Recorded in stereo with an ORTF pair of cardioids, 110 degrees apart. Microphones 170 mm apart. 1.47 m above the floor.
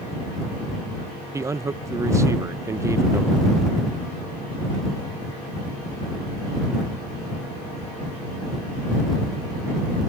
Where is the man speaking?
20° right.